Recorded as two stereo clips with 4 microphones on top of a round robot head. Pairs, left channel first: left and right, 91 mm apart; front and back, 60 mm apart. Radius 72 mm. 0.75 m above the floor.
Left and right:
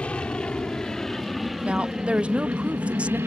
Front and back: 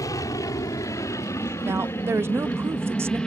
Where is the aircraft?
10° left; by 3.3 s 70° right.